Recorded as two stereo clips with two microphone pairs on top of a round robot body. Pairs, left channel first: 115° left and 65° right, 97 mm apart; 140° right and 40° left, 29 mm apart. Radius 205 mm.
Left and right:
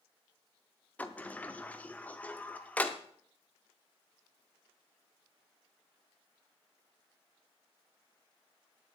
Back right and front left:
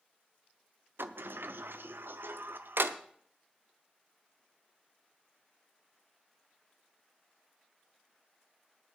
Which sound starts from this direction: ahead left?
A sliding door, at 1.0 s.